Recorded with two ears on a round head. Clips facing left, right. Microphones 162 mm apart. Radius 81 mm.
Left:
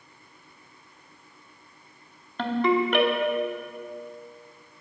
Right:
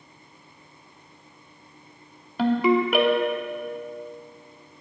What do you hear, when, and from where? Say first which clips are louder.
2.4 s a ringtone: right 3 dB; 5° right (ahead or behind), 0.9 m